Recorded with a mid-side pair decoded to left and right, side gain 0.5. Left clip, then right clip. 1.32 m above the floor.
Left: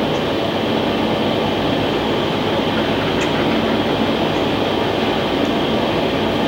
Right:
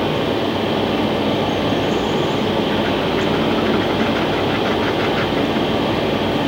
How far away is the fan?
About 1.5 m.